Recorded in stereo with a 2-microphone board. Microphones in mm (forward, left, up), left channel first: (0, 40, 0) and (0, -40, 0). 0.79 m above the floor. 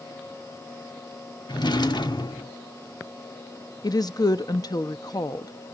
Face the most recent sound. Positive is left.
turn(degrees=50)  # may be behind; listen again after turning